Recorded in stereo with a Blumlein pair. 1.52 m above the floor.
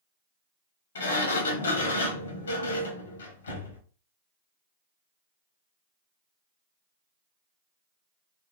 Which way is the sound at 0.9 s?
70° left.